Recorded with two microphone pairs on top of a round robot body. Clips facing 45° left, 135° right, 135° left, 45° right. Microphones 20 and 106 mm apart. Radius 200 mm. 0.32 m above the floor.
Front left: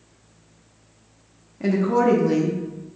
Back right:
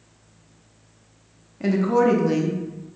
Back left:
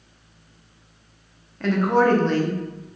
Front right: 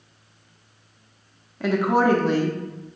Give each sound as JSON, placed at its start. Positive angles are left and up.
{"t": 1.6, "sound": "a woman speaking", "azimuth_deg": -105, "distance_m": 1.0}